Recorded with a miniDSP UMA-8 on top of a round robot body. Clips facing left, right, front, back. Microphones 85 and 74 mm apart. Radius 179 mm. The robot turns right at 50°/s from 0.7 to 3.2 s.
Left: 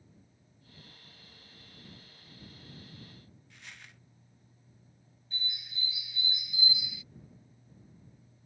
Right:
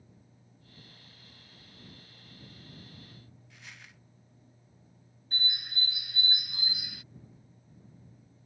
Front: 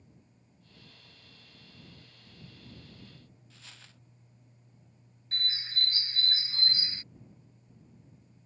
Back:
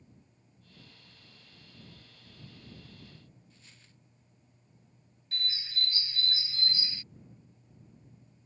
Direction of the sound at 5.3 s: 55° right.